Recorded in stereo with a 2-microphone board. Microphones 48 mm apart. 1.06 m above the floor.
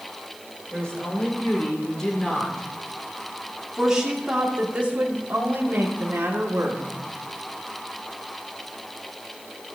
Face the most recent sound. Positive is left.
turn(degrees=-60)  # may be behind; listen again after turning